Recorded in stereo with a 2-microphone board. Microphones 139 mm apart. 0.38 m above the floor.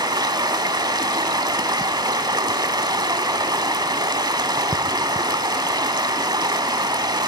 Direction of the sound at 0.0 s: 30° right (ahead or behind).